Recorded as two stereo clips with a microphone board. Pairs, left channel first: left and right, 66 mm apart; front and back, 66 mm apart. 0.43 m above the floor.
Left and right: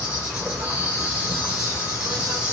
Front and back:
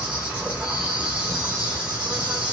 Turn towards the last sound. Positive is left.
turn(degrees=-140)